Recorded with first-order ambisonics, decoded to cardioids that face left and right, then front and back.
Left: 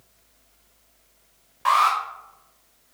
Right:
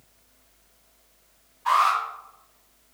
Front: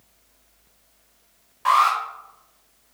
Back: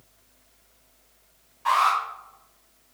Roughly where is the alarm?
Ahead left.